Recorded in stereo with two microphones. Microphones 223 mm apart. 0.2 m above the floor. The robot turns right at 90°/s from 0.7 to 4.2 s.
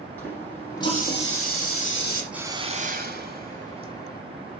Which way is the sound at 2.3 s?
175° right.